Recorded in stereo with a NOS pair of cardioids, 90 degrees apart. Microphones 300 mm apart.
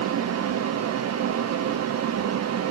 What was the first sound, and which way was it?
A fan, 60° right.